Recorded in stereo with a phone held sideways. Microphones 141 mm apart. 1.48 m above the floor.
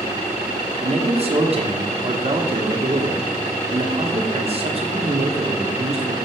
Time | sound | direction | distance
0.8 | a man speaking | 45° right (ahead or behind) | 1.0 m